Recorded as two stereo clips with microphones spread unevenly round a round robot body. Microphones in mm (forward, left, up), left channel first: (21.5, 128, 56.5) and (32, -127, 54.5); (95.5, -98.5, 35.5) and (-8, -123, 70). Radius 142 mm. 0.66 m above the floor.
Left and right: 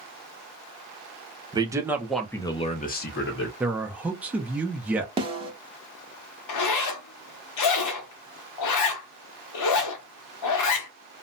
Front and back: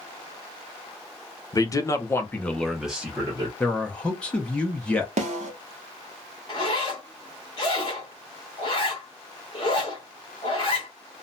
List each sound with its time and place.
1.5 s a man speaking: 15° right, 0.9 m; by 3.5 s 115° left, 0.8 m
3.6 s a man speaking: 10° right, 0.6 m
5.2 s a snare drum: 160° right, 0.7 m
6.5 s a zipper: 75° left, 0.7 m